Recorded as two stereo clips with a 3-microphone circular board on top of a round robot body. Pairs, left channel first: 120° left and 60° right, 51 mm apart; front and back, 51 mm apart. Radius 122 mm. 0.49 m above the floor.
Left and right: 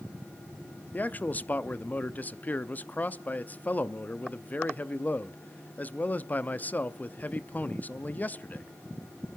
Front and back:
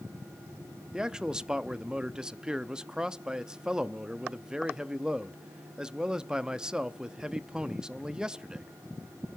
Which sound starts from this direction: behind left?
A man speaking, at 0.9 s.